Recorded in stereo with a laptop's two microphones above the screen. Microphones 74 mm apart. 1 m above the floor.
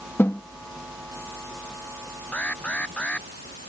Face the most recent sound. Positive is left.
turn(degrees=20)  # may be behind; listen again after turning